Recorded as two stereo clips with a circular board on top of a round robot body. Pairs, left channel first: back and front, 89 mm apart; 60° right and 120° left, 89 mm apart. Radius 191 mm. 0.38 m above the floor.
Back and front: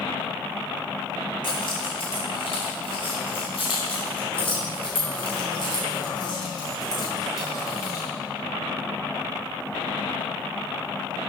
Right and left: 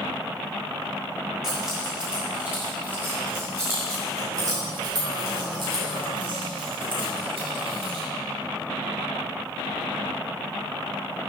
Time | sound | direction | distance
1.4 | keys jangling | 160° right | 4.5 m